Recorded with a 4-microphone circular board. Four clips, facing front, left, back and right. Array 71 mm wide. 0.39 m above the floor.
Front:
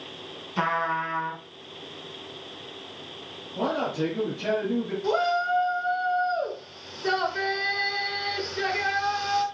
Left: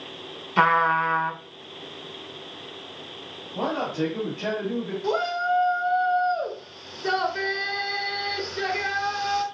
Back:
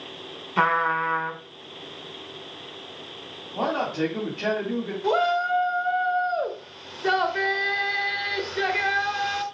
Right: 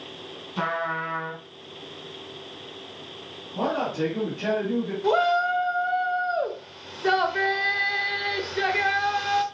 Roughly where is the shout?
Behind right.